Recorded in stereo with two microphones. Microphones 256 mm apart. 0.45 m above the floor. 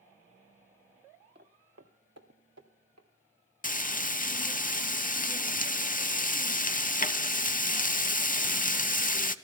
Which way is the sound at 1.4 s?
40° right (ahead or behind).